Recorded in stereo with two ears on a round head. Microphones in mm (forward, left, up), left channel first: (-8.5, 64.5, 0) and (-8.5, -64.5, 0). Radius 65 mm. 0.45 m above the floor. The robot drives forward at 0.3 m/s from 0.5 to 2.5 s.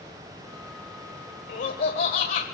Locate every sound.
1.5 s laughter: 60° left (ahead or behind), 1.7 m